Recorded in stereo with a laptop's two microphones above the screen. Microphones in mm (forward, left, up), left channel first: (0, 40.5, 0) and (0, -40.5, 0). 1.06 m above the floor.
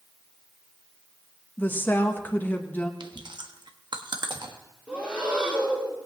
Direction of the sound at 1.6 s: 25° left (ahead or behind).